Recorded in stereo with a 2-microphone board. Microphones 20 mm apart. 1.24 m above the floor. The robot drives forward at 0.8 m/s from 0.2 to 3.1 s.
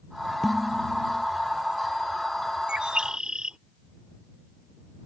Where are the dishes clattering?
20° left (ahead or behind); by 1.2 s 10° left (ahead or behind).